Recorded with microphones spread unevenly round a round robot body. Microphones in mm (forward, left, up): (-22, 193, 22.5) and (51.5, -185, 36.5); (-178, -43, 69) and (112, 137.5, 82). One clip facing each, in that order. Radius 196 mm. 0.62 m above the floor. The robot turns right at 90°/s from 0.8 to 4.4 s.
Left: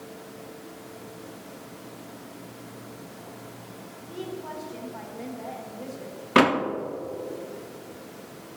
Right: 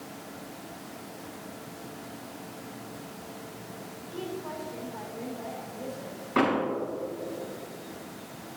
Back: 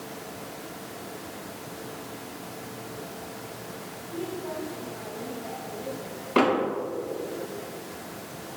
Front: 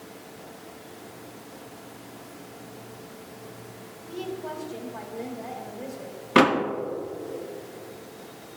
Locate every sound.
4.1 s a woman speaking: straight ahead, 1.4 m; by 6.2 s 30° left, 1.4 m
6.3 s a door slam: 85° left, 0.7 m